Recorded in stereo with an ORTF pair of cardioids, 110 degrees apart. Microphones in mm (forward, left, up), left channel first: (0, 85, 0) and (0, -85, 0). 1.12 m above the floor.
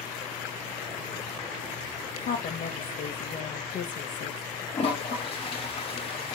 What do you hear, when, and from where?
2.2 s a woman speaking: 55° left, 0.7 m
4.7 s a toilet flushing: 35° left, 0.8 m